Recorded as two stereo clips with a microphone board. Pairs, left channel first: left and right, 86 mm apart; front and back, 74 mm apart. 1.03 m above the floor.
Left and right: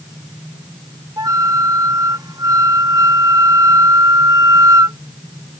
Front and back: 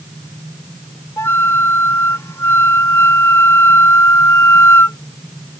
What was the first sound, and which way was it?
A flute, 50° right.